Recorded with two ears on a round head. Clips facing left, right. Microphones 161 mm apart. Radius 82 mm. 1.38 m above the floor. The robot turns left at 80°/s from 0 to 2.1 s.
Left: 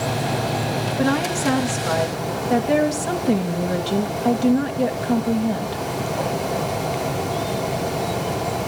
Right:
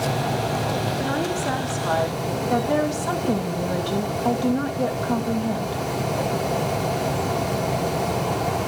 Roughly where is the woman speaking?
Left.